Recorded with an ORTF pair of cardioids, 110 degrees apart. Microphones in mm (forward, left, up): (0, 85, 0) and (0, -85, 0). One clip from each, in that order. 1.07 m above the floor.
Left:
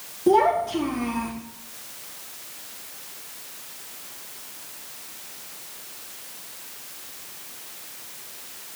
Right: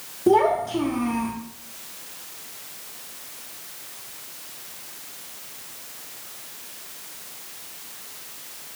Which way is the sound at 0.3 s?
10° right.